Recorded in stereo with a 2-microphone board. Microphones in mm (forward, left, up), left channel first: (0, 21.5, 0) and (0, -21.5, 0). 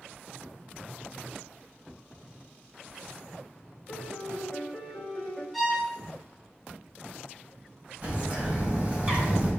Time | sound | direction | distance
3.9 | a piano | centre (ahead or behind) | 1.6 m
5.5 | a violin | 5° right (ahead or behind) | 2.5 m
8.0 | a bird | 35° right (ahead or behind) | 1.9 m